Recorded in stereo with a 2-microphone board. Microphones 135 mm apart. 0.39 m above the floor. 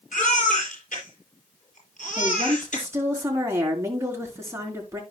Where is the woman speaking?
20° right (ahead or behind), 4.5 m.